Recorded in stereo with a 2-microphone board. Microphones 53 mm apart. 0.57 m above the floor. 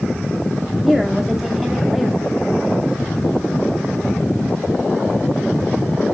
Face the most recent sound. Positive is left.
turn(degrees=-5)  # may be behind; listen again after turning